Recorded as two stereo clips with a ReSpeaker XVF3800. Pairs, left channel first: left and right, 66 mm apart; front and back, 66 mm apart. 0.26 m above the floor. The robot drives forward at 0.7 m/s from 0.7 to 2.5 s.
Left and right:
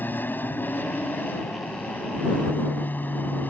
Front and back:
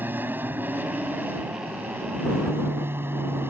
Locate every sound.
0.0 s an aircraft: 135° left; by 3.5 s 140° left